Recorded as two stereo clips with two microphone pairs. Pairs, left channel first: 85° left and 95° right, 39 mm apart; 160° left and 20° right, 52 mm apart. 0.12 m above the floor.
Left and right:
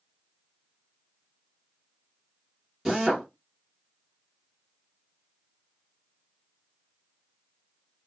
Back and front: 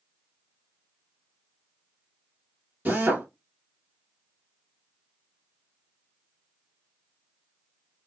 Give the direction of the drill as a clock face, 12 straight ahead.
1 o'clock.